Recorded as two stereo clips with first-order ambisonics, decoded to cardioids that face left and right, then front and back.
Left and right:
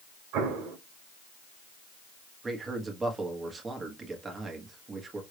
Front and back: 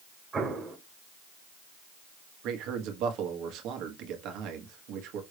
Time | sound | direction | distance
0.3 | an explosion | 110° right | 1.7 m
2.4 | a man speaking | 160° right | 1.2 m